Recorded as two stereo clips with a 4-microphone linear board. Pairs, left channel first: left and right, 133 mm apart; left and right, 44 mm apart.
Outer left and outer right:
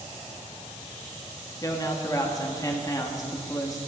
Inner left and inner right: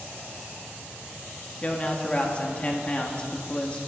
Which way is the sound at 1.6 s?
25° left (ahead or behind).